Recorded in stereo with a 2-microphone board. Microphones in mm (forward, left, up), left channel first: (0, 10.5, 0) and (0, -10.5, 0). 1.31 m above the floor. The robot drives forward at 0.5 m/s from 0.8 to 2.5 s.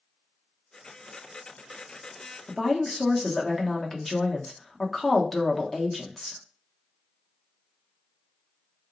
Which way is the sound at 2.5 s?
10° left (ahead or behind).